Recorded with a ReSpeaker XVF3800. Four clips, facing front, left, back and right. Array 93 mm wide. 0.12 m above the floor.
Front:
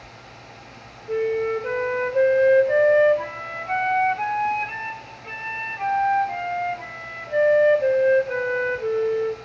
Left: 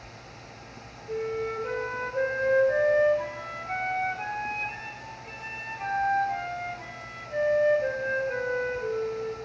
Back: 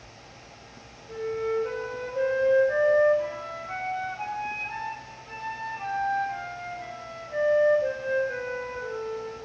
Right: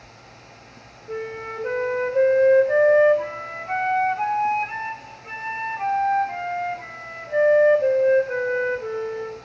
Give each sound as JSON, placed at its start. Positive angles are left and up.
{"t": 1.1, "sound": "a flute", "azimuth_deg": -30, "distance_m": 0.8}